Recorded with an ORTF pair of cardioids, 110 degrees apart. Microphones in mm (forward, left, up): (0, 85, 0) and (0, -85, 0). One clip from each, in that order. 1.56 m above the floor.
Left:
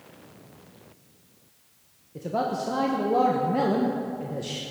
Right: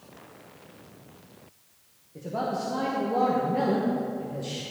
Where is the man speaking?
25° left, 1.1 m.